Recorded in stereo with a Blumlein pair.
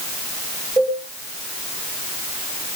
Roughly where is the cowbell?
Ahead right.